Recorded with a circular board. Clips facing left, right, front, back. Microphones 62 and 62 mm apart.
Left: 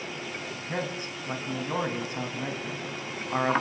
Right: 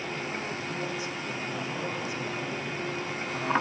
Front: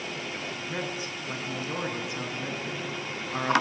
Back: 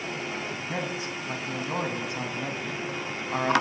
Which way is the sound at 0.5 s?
135° left.